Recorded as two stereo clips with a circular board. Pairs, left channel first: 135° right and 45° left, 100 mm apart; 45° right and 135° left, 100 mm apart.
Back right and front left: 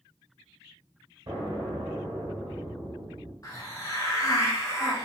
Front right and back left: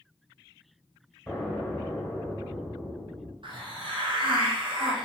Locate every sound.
1.3 s an explosion: 35° left, 0.9 m
3.4 s a hiss: 170° left, 0.6 m